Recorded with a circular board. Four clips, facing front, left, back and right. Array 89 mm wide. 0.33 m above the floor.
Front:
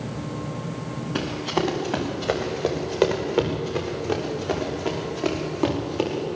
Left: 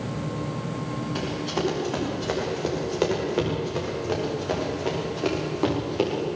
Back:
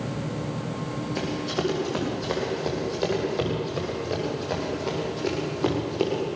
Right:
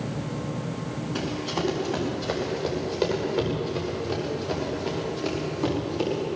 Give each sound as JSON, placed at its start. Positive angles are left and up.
{"t": 1.1, "sound": "running footsteps", "azimuth_deg": 0, "distance_m": 8.0}